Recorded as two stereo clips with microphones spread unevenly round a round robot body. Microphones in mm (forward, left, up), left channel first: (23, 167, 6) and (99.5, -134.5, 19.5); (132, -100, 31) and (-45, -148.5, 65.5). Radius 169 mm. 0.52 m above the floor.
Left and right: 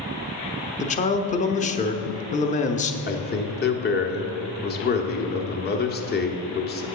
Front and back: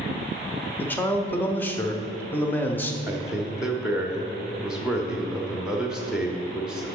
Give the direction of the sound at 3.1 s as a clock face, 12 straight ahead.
9 o'clock.